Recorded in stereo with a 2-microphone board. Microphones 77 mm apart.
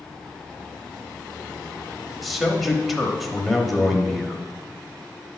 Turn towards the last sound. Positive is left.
turn(degrees=0)  # may be behind; listen again after turning